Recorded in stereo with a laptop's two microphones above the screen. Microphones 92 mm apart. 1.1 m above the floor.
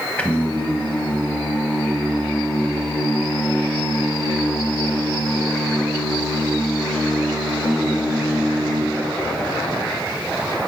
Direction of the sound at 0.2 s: 15° left (ahead or behind).